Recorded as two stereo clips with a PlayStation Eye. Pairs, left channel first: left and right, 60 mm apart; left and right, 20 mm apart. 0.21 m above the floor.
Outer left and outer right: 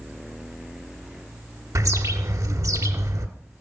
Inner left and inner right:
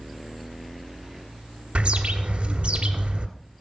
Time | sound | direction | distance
1.8 | a bird | 65° right (ahead or behind) | 1.5 m